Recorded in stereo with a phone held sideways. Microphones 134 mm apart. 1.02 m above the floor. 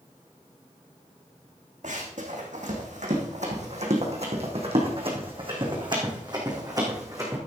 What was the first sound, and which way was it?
Running footsteps, 75° right (ahead or behind).